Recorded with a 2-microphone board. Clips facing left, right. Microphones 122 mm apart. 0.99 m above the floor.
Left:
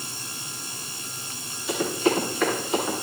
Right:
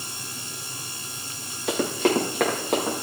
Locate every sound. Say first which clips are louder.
1.7 s running footsteps: right 1 dB; 75° right (ahead or behind), 6.5 m; by 3.0 s 65° right (ahead or behind), 7 m